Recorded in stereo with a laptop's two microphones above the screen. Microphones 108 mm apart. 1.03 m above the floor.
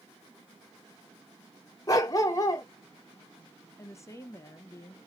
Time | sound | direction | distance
1.9 | a dog barking | 30° left (ahead or behind) | 0.7 m
3.8 | a woman speaking | 25° left (ahead or behind) | 0.6 m